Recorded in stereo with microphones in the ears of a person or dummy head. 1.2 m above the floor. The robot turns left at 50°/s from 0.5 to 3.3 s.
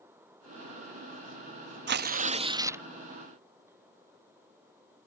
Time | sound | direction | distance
1.9 | tearing paper | 125° right | ?